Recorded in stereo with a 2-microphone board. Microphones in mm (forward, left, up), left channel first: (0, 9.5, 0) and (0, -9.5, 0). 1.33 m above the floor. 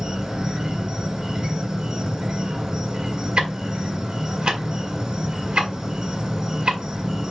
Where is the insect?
40° right (ahead or behind), 1.0 m.